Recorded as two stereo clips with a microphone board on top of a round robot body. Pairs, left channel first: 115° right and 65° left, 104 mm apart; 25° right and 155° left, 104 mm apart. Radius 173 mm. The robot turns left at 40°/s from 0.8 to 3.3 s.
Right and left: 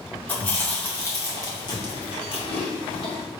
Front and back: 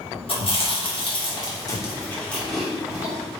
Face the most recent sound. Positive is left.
turn(degrees=-135)